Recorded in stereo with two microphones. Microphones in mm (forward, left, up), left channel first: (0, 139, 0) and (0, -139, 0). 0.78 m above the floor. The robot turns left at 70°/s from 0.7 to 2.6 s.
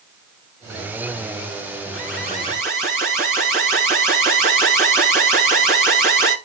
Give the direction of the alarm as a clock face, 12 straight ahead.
10 o'clock.